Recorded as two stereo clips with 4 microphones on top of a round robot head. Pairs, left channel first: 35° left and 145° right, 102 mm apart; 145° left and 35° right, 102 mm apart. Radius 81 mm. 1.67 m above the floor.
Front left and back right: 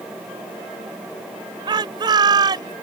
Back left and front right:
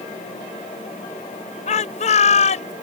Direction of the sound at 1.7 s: 165° left.